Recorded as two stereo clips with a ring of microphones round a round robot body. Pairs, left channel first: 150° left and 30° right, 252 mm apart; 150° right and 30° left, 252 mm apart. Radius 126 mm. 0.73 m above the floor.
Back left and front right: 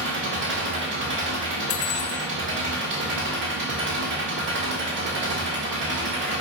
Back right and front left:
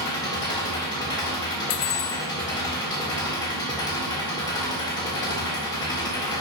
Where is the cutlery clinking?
170° right, 0.5 m.